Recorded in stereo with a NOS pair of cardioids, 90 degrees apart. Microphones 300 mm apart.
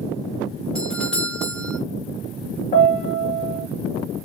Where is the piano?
30° left, 0.9 m.